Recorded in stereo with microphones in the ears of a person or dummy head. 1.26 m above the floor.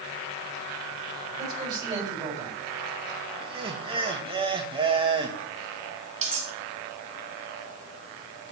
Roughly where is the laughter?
Right.